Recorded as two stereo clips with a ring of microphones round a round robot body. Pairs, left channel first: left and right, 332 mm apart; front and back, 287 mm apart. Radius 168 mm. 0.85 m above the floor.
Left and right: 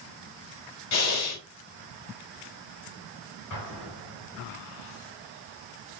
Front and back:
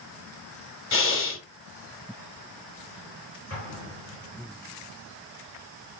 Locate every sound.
0.9 s breathing: 45° left, 1.7 m
3.5 s an explosion: 35° left, 5.5 m